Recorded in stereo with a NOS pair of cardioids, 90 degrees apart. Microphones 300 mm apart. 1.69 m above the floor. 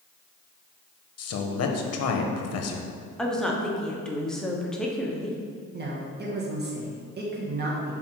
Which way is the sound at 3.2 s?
Straight ahead.